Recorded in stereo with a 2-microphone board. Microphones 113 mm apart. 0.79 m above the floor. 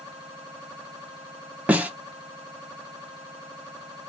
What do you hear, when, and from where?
1.7 s a snare drum: 10° right (ahead or behind), 0.6 m